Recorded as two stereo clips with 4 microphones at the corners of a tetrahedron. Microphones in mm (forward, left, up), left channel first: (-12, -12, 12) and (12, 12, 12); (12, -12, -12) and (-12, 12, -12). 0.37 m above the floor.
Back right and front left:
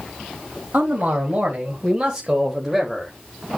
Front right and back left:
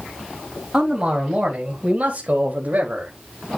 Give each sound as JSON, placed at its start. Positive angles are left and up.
{"t": 0.7, "sound": "a man speaking", "azimuth_deg": 70, "distance_m": 2.5}